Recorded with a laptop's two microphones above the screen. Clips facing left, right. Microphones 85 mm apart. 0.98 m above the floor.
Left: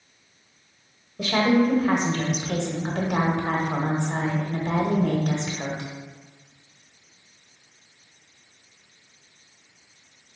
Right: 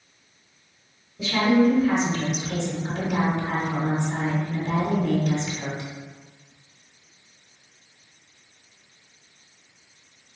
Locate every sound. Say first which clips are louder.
1.2 s a woman speaking: right 1 dB; 55° left (ahead or behind), 0.9 m